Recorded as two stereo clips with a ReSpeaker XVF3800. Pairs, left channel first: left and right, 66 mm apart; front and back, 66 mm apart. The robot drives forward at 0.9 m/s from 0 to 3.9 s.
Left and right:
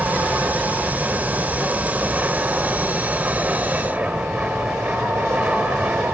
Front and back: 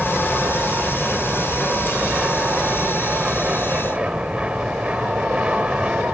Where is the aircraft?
85° right; by 6.2 s 130° right.